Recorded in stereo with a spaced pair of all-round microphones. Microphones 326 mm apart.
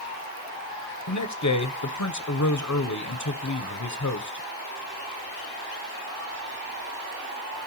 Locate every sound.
1.1 s a man speaking: 60° left (ahead or behind), 0.7 m